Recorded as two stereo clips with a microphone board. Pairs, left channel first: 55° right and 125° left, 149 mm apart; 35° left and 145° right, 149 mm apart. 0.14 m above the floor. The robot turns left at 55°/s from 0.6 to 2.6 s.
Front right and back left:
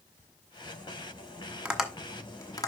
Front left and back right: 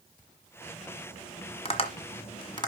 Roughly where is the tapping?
Ahead left.